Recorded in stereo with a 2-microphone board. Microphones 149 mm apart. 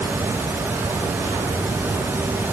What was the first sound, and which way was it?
Only background noise.